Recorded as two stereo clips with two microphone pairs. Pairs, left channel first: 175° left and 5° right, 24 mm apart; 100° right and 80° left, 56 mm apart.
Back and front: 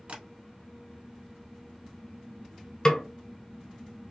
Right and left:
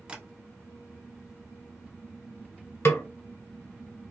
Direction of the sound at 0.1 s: 10° left.